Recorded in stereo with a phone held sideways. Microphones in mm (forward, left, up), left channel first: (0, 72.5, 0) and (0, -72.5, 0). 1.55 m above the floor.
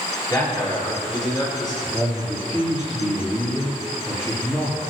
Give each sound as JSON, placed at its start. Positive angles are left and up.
{"t": 0.3, "sound": "a man speaking", "side_deg": 25, "distance_m": 5.0}
{"t": 1.8, "sound": "a man speaking", "side_deg": 20, "distance_m": 4.0}